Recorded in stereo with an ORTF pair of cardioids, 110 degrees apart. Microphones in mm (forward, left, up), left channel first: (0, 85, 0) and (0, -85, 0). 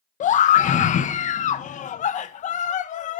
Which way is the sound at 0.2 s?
50° left.